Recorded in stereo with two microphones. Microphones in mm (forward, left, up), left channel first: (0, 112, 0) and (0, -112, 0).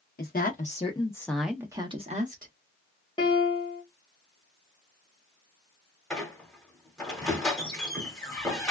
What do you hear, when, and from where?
0.2 s a woman speaking: 45° left (ahead or behind), 0.8 m; by 2.5 s 40° right (ahead or behind), 0.9 m
3.2 s a piano: 20° left (ahead or behind), 1.4 m
6.1 s a squeak: centre (ahead or behind), 1.2 m